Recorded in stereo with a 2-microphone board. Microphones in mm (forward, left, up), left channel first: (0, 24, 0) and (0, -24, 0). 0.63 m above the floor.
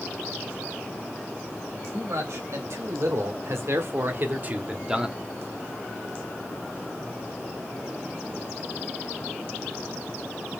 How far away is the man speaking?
About 3 m.